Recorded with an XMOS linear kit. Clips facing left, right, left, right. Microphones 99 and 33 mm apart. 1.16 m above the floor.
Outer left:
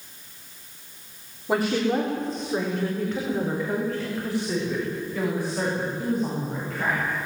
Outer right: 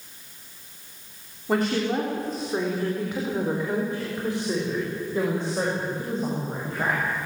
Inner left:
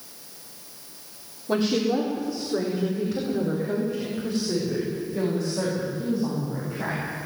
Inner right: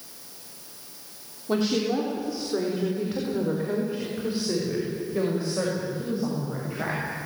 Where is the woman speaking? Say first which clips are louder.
Outer left 1 dB, inner left 1 dB; 5° left (ahead or behind), 3.5 m; by 7.2 s 30° right (ahead or behind), 7.5 m.